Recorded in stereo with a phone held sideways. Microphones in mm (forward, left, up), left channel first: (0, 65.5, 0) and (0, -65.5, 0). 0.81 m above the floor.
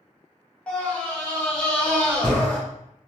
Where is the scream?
10° left (ahead or behind), 1.1 m.